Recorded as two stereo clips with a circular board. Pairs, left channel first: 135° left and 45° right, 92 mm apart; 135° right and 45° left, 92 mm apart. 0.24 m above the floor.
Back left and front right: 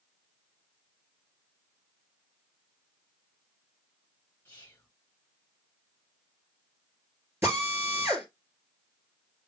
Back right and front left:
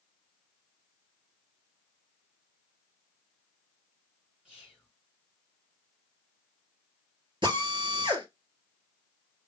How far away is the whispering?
About 1.1 m.